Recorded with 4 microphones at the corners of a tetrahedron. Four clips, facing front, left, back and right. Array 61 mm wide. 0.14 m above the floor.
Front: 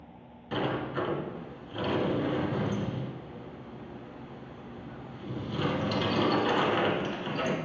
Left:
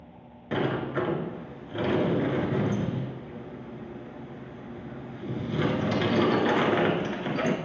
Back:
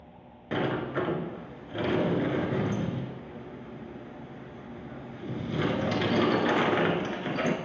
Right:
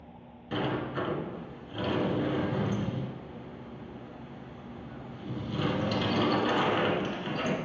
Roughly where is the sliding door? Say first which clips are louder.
Left 4 dB, back 2 dB; behind left.